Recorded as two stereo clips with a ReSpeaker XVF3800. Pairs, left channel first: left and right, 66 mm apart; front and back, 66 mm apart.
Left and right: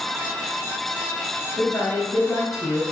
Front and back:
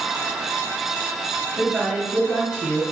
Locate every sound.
1.6 s a woman speaking: 115° left, 1.9 m